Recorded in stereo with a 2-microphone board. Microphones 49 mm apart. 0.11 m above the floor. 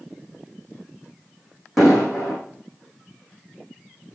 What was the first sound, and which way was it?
An explosion, centre (ahead or behind).